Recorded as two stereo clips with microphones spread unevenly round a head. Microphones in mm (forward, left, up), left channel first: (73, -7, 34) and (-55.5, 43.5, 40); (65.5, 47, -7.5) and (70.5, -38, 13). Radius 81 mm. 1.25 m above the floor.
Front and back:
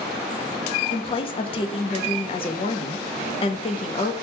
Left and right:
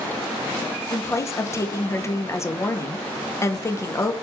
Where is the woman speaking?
30° left, 0.5 m.